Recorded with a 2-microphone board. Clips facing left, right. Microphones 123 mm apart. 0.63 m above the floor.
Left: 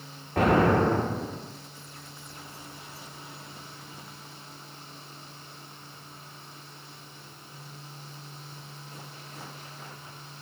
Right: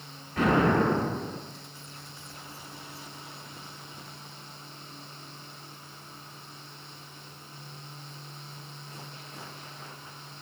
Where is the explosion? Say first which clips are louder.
Left 2 dB; 55° left (ahead or behind), 1.8 m.